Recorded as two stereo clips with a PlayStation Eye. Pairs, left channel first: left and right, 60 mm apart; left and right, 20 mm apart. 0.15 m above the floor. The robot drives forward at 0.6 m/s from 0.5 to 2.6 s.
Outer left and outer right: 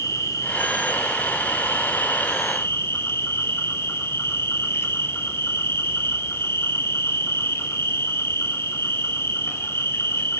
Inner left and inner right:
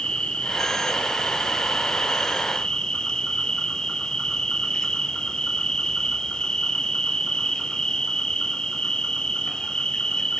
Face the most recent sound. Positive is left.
turn(degrees=45)  # may be behind; listen again after turning